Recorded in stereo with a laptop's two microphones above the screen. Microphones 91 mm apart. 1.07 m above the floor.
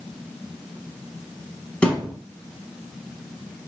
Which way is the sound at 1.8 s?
15° left (ahead or behind).